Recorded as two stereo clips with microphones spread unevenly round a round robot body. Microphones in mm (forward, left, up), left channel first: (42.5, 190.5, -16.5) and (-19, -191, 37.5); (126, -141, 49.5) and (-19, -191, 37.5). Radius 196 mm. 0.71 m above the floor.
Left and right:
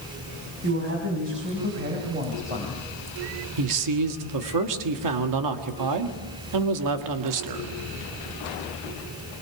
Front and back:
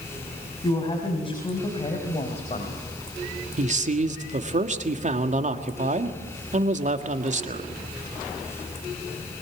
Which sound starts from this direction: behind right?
A man speaking, at 3.6 s.